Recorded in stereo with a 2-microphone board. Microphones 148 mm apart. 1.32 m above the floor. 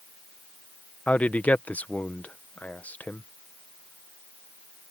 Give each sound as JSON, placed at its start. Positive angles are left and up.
{"t": 1.1, "sound": "a man speaking", "side_deg": 10}